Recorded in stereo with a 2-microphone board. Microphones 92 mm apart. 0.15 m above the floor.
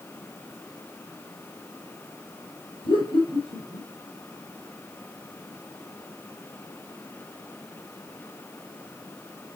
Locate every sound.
2.8 s laughter: 65° left (ahead or behind), 4 m